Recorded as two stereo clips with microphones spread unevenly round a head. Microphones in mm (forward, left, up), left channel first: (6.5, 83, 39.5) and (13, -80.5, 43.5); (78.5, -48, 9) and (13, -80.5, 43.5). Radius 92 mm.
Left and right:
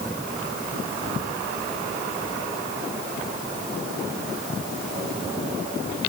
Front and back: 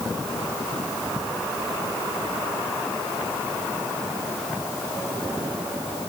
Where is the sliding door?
I don't hear a sliding door.